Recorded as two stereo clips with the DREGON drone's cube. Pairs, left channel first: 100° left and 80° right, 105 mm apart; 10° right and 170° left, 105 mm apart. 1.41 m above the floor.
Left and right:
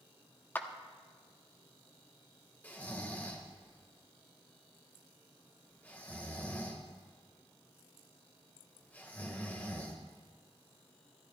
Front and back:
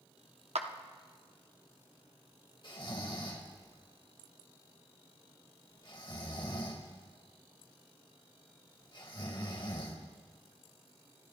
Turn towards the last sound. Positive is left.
turn(degrees=25)